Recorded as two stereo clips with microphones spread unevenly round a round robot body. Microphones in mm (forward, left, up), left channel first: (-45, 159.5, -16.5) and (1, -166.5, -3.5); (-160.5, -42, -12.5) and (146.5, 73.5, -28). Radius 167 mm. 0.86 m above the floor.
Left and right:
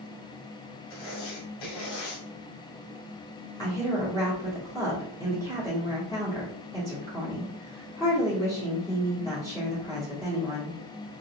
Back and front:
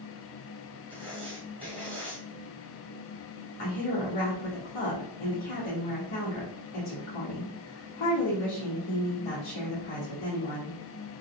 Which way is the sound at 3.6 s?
175° left.